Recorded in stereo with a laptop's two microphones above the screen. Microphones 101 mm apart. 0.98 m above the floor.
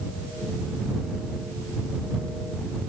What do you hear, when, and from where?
Only background noise.